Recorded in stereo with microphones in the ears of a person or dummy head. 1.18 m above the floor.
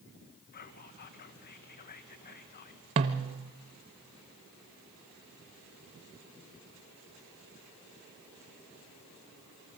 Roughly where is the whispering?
Left.